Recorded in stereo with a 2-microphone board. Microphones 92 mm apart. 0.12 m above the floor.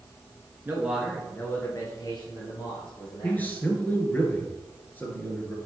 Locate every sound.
0.7 s a man speaking: 25° right (ahead or behind), 1.3 m; by 3.5 s 70° left (ahead or behind), 3.5 m
3.2 s a man speaking: 20° left (ahead or behind), 2.0 m